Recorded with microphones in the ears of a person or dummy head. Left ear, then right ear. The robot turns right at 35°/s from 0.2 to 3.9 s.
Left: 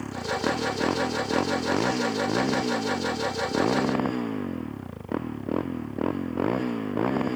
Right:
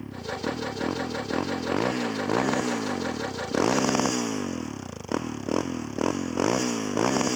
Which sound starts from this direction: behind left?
A motorcycle, at 0.0 s.